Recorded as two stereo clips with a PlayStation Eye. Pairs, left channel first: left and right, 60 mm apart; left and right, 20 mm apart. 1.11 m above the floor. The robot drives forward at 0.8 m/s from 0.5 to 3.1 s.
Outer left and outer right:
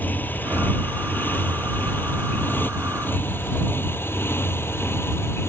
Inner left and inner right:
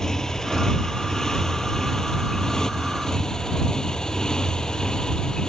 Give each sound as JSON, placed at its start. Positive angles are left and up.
{"t": 0.0, "sound": "a motorcycle", "side_deg": 30}